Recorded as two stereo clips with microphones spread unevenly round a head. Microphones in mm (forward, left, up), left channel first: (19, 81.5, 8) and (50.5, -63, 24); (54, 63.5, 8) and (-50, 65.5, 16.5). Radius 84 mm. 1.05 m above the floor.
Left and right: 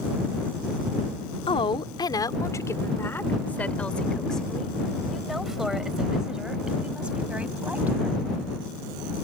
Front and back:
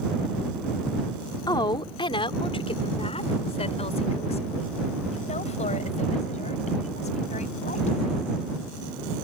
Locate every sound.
1.5 s a woman speaking: 50° left; by 8.3 s straight ahead